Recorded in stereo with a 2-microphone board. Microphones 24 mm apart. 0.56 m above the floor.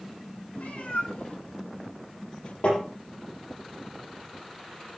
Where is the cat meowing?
75° left (ahead or behind), 2.0 m; by 2.5 s 55° left (ahead or behind), 1.2 m.